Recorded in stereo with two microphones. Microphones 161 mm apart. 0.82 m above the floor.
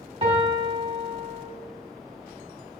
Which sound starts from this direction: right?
A piano, at 0.2 s.